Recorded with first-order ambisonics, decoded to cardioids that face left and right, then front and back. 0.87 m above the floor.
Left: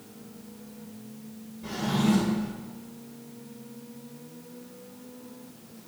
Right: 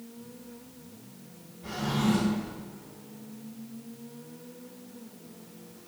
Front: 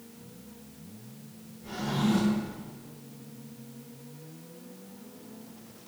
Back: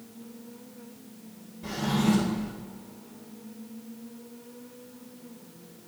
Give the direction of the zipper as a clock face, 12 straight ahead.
I don't hear a zipper.